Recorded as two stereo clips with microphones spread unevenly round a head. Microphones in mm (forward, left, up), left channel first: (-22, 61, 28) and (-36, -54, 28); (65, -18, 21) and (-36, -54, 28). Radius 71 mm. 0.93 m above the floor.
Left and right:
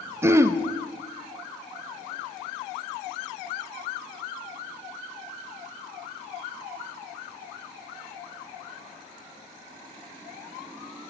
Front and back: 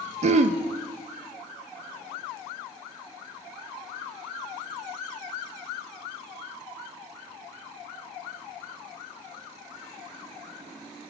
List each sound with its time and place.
0.2 s throat clearing: 165° right, 0.6 m